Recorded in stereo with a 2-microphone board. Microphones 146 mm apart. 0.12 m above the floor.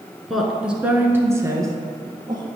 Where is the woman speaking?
Centre (ahead or behind), 1.1 m; by 2.5 s 30° right (ahead or behind), 1.5 m.